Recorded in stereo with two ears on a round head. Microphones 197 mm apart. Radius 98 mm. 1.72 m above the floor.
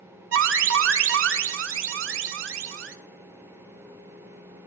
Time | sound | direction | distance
0.3 | an alarm | 65° right (ahead or behind) | 0.8 m